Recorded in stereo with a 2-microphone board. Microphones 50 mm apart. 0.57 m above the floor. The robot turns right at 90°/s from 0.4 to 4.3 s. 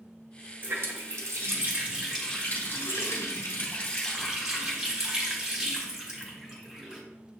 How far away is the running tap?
About 1.2 m.